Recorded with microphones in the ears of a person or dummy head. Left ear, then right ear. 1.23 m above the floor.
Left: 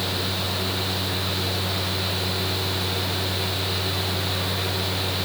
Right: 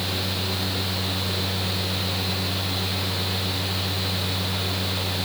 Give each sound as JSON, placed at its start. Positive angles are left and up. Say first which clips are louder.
{"t": 0.0, "sound": "a fan", "louder": "left 1 dB", "side_deg": 40, "distance_m": 3.5}